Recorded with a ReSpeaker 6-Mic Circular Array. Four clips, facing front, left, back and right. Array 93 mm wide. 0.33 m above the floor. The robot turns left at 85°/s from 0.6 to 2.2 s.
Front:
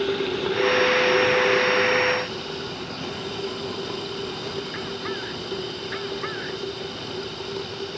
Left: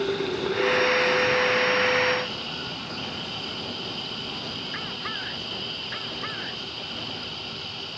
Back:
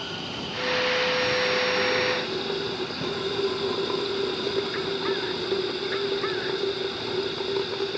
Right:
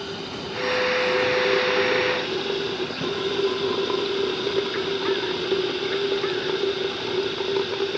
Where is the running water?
25° left; by 8.0 s 110° right.